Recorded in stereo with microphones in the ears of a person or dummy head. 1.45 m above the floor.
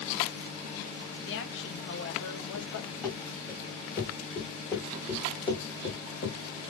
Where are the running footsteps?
10° left (ahead or behind), 4 m; by 6.4 s 25° left (ahead or behind), 1.9 m.